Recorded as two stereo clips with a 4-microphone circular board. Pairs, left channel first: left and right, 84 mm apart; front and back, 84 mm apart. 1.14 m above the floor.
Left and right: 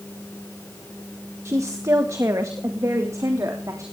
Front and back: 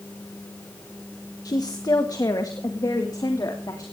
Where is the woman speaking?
35° right, 1.2 m; by 3.8 s 40° right, 3.5 m.